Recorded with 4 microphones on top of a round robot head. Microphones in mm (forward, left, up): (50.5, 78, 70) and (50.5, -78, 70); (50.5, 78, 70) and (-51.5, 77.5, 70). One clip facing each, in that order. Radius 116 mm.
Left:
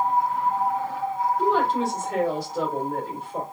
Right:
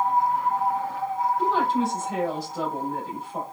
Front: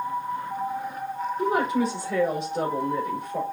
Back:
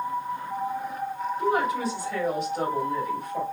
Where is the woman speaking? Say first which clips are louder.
Left 2 dB, front 1 dB; 60° left, 3.5 m.